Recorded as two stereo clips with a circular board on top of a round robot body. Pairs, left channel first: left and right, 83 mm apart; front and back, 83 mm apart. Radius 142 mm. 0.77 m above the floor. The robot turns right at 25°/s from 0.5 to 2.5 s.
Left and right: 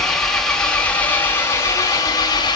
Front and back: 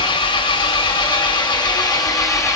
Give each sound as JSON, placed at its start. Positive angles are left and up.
{"t": 0.0, "sound": "an engine running", "azimuth_deg": 5, "distance_m": 1.8}